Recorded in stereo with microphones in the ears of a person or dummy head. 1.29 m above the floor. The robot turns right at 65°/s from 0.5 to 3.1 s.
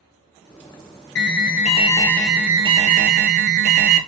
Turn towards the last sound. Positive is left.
turn(degrees=-130)